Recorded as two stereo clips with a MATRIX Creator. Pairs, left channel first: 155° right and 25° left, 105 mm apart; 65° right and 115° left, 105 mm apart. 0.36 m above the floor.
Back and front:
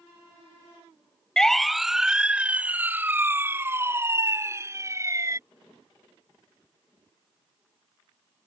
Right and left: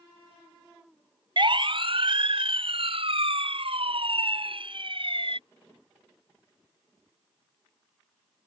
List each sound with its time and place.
1.4 s a siren: 120° left; by 5.4 s 80° left